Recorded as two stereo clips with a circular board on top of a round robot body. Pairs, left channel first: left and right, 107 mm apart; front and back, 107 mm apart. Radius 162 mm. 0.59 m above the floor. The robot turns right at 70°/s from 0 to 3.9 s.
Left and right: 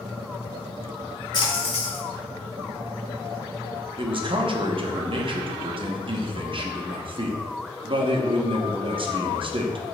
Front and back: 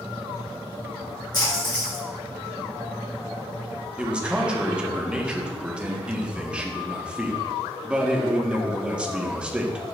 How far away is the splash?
About 3 m.